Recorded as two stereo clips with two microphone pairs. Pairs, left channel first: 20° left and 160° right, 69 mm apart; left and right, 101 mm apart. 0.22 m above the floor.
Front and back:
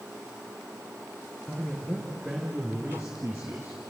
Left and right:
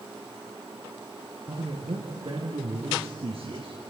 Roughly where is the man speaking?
Ahead right.